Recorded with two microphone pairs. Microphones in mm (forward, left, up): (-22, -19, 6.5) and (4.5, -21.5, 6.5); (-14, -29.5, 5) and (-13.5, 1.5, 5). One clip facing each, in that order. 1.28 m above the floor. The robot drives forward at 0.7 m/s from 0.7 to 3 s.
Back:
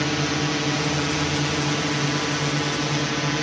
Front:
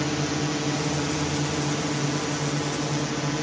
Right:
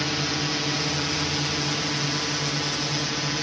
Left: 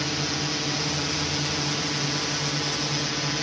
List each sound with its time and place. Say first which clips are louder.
0.0 s a drone: back 3 dB, right 2 dB; 165° right; by 3.4 s straight behind